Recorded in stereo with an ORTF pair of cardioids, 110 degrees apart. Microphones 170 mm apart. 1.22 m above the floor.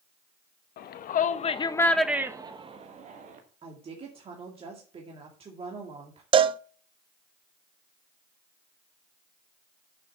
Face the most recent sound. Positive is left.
turn(degrees=-30)